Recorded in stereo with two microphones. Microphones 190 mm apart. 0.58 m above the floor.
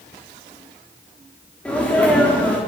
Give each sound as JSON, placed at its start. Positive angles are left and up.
{"t": 1.6, "sound": "a sneeze", "side_deg": 5, "distance_m": 1.3}